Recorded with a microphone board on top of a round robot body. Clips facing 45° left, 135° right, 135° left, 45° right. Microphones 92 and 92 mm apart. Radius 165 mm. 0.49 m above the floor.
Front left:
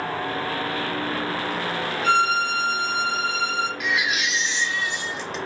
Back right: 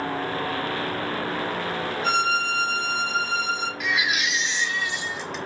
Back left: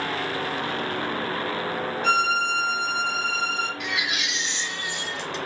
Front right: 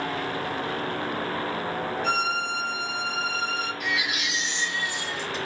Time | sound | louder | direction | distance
2.0 | a violin | front left 4 dB, back left 6 dB | 165° left | 1.2 m
3.8 | a baby crying | front left 1 dB, even | 135° left | 1.6 m